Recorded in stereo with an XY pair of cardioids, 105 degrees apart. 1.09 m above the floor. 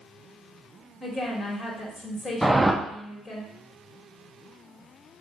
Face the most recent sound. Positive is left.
turn(degrees=-5)